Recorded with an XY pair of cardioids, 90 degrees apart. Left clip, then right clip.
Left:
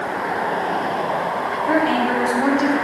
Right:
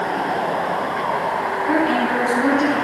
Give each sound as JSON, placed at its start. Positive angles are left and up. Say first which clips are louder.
{"t": 1.7, "sound": "a woman speaking", "louder": "left 1 dB", "azimuth_deg": 45, "distance_m": 8.5}